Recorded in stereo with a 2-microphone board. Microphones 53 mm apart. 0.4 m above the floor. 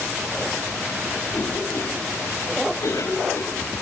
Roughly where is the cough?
Left.